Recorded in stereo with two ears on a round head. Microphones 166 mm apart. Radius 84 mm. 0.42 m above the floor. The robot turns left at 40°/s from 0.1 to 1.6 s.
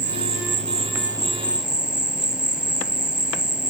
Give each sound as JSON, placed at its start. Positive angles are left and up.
{"t": 0.0, "sound": "an insect", "azimuth_deg": -115}